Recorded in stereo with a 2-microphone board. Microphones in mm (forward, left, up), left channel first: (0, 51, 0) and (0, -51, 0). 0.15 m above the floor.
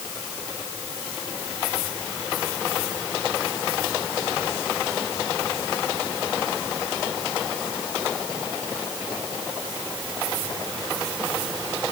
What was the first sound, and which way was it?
Only background noise.